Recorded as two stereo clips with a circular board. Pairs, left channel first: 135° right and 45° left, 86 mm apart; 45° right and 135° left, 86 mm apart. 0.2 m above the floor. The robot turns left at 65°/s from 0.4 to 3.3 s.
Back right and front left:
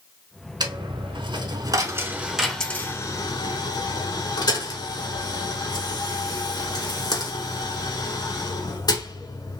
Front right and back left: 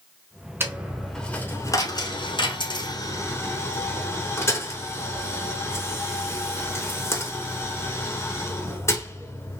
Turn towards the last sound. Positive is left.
turn(degrees=-100)